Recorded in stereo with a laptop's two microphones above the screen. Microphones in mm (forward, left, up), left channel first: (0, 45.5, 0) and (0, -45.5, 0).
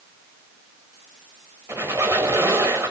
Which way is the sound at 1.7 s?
30° right (ahead or behind).